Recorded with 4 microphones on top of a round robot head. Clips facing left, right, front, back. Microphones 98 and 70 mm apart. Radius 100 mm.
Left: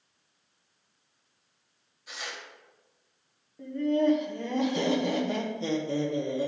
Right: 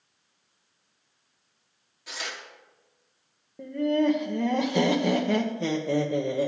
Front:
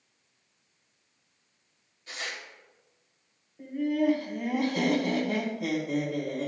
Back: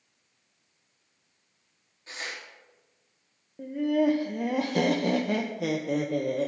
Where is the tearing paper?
110° right, 1.1 m.